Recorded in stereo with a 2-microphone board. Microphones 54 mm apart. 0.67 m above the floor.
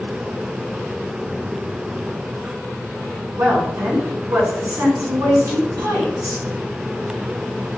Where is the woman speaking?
85° right, 5.5 m.